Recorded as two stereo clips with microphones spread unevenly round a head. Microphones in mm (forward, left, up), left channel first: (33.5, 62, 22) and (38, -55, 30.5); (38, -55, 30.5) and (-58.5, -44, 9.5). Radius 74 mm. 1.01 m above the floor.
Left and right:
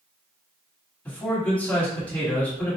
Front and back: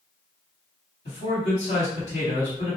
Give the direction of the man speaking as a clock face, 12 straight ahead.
12 o'clock.